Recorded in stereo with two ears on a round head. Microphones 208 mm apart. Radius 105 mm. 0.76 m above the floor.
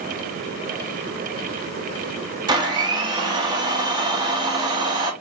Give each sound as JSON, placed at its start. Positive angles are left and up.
{"t": 2.5, "sound": "a blender", "side_deg": -20, "distance_m": 1.0}